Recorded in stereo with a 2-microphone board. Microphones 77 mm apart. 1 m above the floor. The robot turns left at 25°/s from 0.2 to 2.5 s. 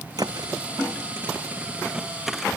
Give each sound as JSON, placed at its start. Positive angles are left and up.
{"t": 0.2, "sound": "a thud", "side_deg": -55}